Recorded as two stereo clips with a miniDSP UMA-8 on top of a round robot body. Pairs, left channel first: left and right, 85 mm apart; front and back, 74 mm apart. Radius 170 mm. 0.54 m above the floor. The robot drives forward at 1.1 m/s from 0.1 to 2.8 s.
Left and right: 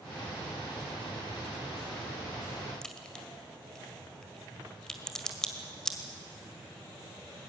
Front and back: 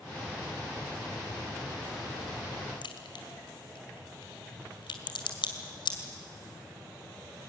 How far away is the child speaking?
No child speaking in this recording.